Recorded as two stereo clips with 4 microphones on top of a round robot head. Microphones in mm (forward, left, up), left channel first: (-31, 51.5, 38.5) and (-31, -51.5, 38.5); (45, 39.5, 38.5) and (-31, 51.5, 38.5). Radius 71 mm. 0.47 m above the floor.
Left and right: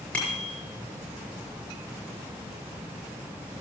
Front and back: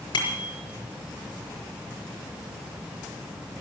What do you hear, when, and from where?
0.1 s a bicycle bell: 10° left, 6 m